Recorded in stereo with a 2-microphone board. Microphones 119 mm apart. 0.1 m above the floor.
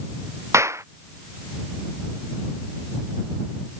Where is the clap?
25° right (ahead or behind).